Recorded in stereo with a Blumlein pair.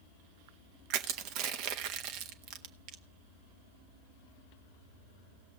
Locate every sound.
0.9 s crushing: 40° right, 1.1 m